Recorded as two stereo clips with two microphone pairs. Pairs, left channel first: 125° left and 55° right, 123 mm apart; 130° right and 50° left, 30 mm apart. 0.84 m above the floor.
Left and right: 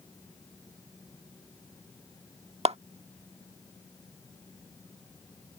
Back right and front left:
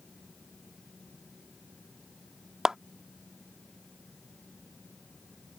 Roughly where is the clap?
Ahead right.